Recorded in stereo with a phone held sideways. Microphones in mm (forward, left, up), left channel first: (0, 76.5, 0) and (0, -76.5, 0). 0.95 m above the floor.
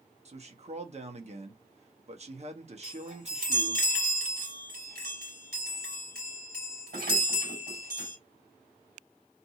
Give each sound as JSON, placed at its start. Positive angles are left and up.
{"t": 0.2, "sound": "a man speaking", "side_deg": -45, "distance_m": 1.0}
{"t": 2.8, "sound": "a chime", "side_deg": -80, "distance_m": 3.0}